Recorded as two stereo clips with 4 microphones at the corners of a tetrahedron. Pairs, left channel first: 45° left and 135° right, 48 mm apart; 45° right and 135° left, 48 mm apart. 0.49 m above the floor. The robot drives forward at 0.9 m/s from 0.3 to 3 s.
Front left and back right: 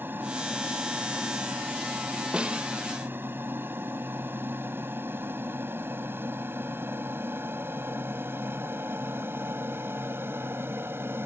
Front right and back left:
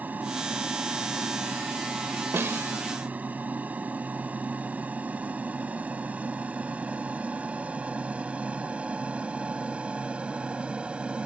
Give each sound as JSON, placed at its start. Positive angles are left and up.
{"t": 0.0, "sound": "an aircraft", "azimuth_deg": -175}
{"t": 2.3, "sound": "a snare drum", "azimuth_deg": 155}